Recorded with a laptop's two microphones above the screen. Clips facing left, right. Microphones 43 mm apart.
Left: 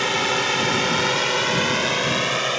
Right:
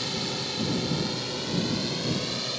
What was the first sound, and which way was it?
A drone, 65° left (ahead or behind).